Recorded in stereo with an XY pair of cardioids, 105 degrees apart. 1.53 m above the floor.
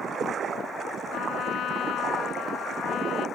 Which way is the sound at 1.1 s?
70° left.